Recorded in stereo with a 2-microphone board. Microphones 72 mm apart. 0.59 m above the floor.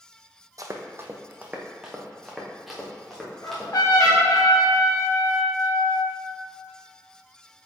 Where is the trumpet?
70° left (ahead or behind), 1.7 m.